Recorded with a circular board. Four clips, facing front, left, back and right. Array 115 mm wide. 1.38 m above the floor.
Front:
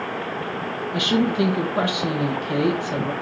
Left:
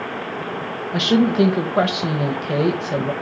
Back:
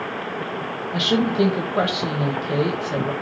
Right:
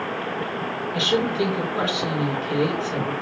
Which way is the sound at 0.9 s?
105° left.